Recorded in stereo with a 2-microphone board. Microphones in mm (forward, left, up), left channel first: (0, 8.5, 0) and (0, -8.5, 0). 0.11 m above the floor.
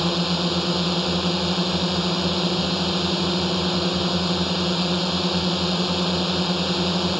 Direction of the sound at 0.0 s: 5° right (ahead or behind).